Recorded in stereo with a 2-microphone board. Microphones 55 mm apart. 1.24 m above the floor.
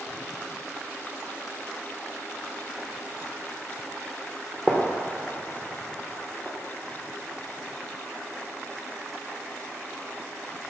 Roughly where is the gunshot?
Centre.